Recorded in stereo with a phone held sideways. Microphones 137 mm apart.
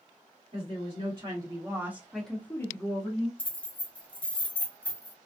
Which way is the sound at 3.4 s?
10° left (ahead or behind).